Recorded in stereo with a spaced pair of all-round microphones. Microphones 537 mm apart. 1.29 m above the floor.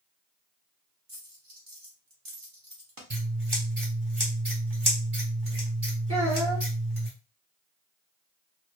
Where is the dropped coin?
40° right (ahead or behind), 0.9 m.